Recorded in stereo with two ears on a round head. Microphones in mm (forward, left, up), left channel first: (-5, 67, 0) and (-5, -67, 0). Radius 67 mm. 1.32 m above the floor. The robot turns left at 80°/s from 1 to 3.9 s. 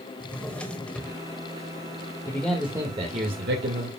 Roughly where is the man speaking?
Ahead.